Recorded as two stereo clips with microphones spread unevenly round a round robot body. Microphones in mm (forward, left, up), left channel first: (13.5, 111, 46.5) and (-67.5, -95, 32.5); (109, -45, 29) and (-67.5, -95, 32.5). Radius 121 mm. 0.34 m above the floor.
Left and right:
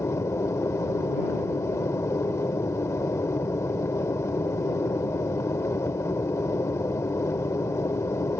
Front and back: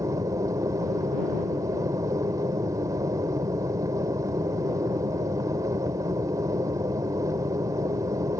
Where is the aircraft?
140° left.